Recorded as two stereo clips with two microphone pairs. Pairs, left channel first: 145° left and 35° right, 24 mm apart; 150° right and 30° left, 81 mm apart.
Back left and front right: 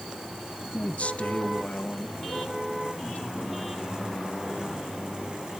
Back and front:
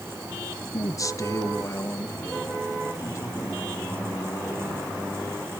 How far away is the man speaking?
About 1.1 m.